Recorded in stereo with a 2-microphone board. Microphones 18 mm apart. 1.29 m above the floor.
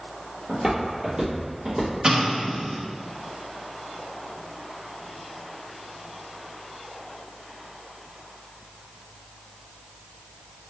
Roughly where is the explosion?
Right.